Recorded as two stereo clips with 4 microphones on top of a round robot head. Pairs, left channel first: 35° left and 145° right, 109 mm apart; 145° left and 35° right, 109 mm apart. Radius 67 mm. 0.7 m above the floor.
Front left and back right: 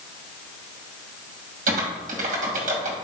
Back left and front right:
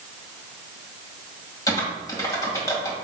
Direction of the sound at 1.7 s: 150° right.